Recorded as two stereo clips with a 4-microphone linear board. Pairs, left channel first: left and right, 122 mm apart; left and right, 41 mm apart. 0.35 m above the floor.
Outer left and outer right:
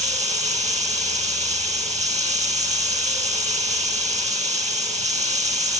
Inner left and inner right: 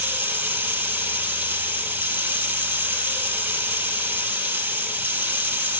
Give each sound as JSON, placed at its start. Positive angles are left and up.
{"t": 0.0, "sound": "running water", "side_deg": -70, "distance_m": 7.0}